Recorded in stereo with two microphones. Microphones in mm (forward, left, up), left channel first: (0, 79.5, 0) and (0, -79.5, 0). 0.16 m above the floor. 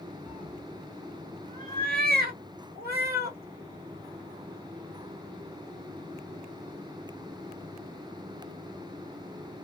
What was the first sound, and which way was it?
A cat meowing, 5° right (ahead or behind).